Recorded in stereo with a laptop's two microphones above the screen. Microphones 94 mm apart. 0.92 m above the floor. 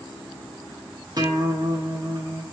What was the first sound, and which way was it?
A guitar, 45° right (ahead or behind).